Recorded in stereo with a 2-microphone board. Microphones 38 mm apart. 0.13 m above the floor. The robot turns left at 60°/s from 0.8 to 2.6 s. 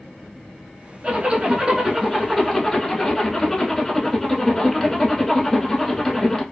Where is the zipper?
95° right, 1.1 m; by 6.4 s 170° left, 1.1 m.